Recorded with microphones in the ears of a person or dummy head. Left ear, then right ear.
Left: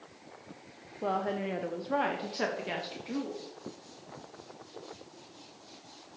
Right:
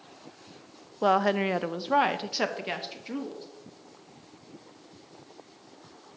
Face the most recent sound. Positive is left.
turn(degrees=-15)  # may be behind; listen again after turning